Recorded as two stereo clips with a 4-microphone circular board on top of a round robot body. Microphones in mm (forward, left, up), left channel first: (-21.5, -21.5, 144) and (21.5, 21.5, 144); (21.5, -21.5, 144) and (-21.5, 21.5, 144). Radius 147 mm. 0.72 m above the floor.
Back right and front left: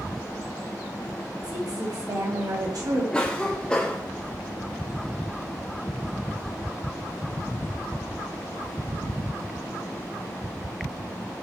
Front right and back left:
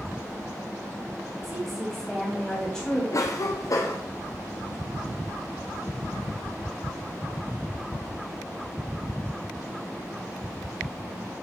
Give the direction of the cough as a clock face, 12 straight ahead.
2 o'clock.